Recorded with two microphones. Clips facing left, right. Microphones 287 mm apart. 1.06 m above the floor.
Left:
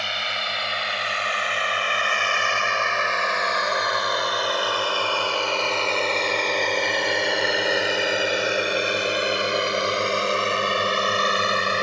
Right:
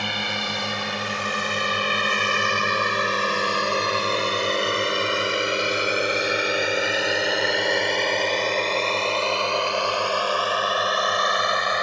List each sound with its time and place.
0.0 s a drone: 55° right (ahead or behind); by 11.8 s 35° left (ahead or behind)